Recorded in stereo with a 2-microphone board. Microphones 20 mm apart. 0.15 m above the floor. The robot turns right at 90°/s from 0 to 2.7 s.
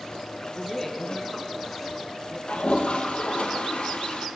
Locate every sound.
0.5 s a woman speaking: 15° left (ahead or behind), 1.1 m; by 2.4 s 5° right (ahead or behind), 1.1 m
2.5 s a toilet flushing: 80° left, 1.7 m; by 4.3 s 65° left (ahead or behind), 1.7 m